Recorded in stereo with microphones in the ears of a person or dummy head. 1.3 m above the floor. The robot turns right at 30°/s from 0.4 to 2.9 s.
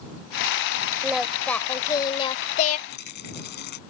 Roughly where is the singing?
Ahead.